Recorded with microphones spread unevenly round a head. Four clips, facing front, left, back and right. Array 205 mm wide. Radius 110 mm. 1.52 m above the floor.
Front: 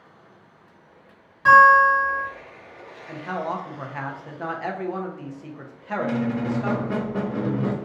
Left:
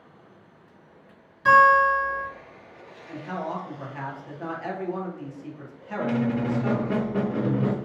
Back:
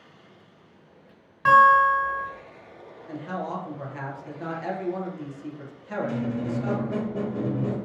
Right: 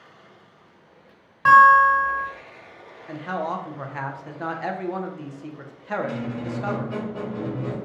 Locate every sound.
1.4 s a guitar: 95° right, 2 m
3.1 s a man speaking: 55° right, 0.9 m
6.0 s a squeak: 25° left, 0.5 m